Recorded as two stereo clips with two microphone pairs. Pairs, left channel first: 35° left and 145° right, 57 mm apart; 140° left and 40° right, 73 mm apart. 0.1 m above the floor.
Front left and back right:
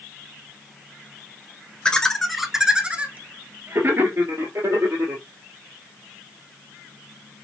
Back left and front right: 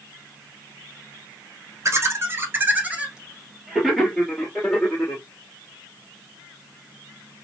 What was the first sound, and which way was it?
Laughter, 30° right.